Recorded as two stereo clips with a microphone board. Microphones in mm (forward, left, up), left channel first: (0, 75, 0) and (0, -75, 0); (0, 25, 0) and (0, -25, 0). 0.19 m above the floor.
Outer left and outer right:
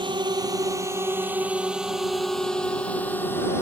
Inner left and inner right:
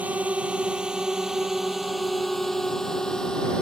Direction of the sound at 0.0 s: 30° right (ahead or behind).